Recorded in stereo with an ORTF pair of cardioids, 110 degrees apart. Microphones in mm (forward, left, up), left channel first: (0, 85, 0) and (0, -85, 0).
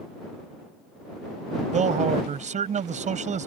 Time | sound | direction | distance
1.7 | a man speaking | 45° right | ?